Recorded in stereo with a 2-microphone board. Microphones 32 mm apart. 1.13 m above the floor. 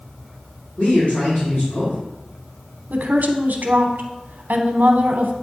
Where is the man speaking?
55° left (ahead or behind), 3 m.